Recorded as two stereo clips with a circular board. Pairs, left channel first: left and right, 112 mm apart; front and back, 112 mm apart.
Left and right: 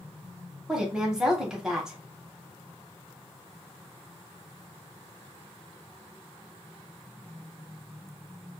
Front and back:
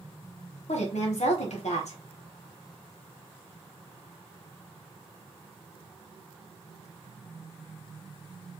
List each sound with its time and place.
0.7 s a woman speaking: 5° right, 0.8 m